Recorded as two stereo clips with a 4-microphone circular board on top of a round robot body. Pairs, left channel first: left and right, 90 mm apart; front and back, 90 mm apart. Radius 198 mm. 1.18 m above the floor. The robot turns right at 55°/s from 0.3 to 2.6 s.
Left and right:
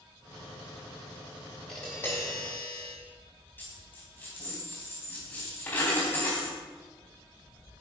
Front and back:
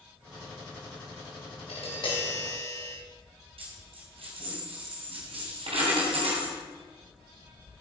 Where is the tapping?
Straight ahead, 4.5 m; by 2.9 s 50° left, 4.5 m.